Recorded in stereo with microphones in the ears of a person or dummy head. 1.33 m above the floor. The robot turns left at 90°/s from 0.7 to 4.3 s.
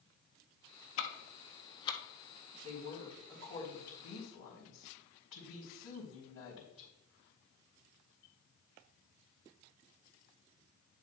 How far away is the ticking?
About 1.0 m.